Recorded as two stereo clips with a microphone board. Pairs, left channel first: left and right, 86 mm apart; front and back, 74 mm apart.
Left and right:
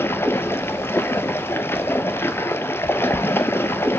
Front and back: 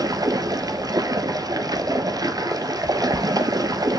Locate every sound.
0.0 s running water: 150° left, 0.9 m